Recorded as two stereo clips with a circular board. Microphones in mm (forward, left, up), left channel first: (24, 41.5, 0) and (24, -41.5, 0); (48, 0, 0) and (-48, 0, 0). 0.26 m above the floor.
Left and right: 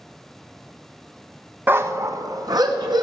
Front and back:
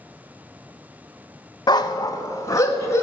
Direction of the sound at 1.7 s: 30° right.